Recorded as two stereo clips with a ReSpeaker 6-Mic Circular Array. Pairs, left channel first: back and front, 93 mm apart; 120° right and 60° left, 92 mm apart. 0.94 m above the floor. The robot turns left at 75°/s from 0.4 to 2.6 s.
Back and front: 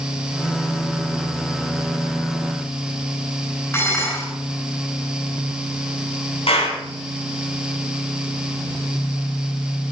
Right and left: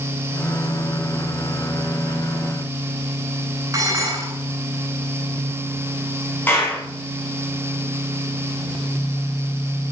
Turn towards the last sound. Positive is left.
turn(degrees=170)